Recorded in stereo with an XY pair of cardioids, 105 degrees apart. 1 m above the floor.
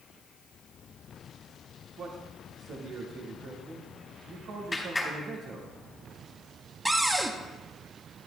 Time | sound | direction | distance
2.0 | a man speaking | 60° right | 2 m
4.7 | a clap | 15° left | 3.5 m
6.8 | a cupboard door | 15° right | 1.0 m